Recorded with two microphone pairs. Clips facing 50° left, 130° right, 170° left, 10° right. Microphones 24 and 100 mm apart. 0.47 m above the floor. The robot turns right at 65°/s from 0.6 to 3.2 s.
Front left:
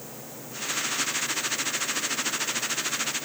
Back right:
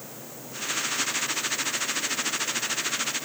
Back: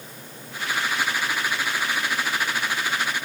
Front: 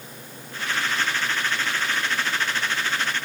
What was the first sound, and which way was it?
Only background noise.